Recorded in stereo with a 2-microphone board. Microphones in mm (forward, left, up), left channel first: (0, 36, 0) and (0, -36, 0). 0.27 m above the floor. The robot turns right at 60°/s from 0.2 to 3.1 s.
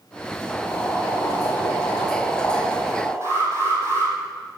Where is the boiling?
30° left, 10 m; by 3.1 s 170° right, 10 m.